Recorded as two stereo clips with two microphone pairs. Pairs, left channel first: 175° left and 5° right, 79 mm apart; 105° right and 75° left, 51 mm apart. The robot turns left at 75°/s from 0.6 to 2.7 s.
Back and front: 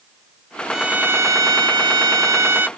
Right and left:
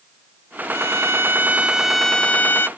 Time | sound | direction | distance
0.7 | a violin | 80° left | ?